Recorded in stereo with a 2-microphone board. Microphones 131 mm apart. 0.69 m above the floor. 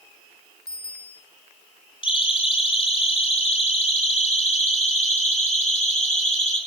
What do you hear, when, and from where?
0.7 s a bicycle bell: 30° right (ahead or behind), 4 m
2.0 s a siren: 45° left (ahead or behind), 7.5 m; by 6.6 s 65° left (ahead or behind), 10 m